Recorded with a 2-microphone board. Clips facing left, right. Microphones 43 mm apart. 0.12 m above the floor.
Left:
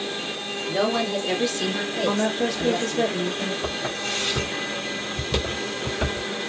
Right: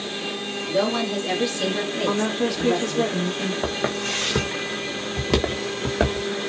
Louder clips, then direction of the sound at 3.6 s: Right 3 dB; 55° right (ahead or behind).